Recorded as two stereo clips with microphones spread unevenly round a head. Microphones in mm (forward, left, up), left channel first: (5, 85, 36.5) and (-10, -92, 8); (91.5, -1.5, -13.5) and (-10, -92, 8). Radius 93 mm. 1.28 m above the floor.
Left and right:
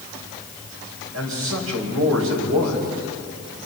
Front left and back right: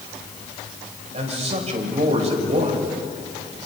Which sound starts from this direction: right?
A man speaking, at 1.1 s.